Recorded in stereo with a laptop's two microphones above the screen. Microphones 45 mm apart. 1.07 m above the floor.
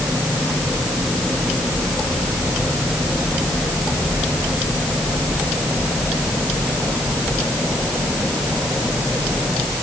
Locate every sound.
Only background noise.